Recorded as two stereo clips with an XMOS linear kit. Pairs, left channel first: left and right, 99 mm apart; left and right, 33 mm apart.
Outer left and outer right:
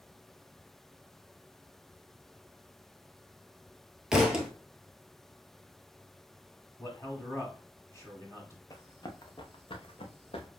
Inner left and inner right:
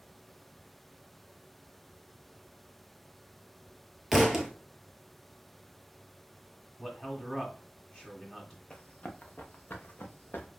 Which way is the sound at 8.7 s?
35° left (ahead or behind).